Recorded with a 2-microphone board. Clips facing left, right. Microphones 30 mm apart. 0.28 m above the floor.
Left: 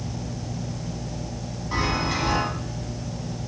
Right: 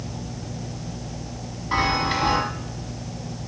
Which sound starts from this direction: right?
A chime, at 1.7 s.